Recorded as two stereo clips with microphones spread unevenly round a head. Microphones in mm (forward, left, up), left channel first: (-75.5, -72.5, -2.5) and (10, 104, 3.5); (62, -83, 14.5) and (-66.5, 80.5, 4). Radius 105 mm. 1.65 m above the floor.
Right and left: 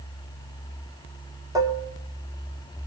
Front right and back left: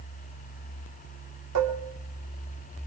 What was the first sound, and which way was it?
Dishes clattering, 135° left.